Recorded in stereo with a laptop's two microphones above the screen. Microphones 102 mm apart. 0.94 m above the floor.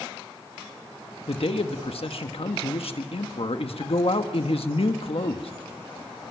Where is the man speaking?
70° left (ahead or behind), 1.3 m.